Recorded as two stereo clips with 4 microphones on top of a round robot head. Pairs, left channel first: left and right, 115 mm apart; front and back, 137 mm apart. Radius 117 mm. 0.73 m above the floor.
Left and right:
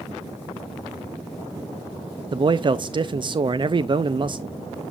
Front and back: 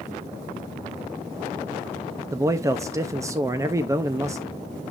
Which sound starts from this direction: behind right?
A man speaking, at 2.3 s.